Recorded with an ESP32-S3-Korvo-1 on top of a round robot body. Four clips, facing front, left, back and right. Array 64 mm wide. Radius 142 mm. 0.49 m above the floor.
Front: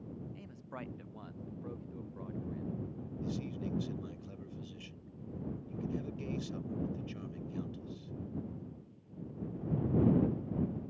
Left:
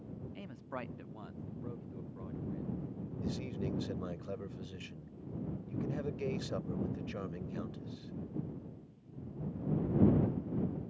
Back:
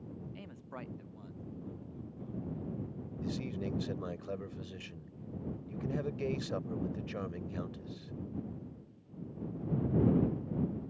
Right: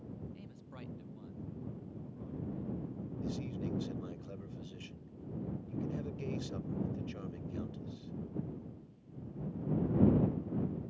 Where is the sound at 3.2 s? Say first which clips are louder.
Left 1 dB, back 2 dB; 150° left.